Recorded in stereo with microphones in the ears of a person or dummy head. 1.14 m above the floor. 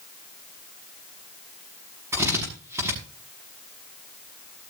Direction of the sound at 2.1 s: 15° right (ahead or behind).